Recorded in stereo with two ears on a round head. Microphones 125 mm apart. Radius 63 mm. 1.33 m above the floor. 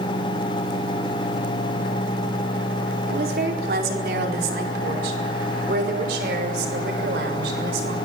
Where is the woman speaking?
70° right (ahead or behind), 4 m; by 8.0 s 85° right, 7 m.